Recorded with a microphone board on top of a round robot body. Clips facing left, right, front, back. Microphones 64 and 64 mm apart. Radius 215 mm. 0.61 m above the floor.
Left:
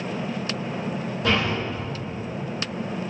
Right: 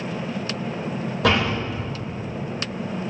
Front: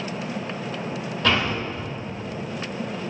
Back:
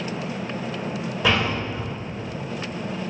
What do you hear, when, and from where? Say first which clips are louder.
1.2 s a door slam: right 3 dB, even; 100° right, 3.5 m